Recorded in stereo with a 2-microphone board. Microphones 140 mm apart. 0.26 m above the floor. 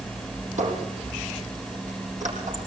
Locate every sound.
0.6 s a squeak: 60° right (ahead or behind), 6.5 m